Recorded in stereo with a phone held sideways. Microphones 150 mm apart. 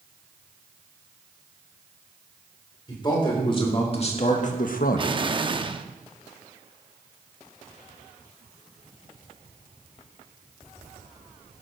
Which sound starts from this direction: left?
A man speaking, at 2.9 s.